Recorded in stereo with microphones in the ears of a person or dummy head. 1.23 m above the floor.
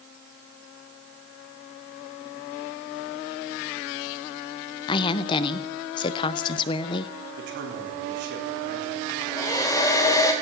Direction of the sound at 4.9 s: 25° left (ahead or behind).